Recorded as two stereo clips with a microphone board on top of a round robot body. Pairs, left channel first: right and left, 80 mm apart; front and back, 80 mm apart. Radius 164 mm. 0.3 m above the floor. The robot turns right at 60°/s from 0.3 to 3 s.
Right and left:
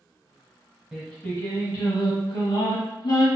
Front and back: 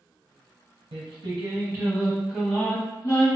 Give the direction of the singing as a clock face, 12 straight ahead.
6 o'clock.